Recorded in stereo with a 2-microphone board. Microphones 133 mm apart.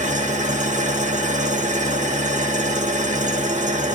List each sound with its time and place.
0.0 s an engine running: 65° right (ahead or behind), 0.8 m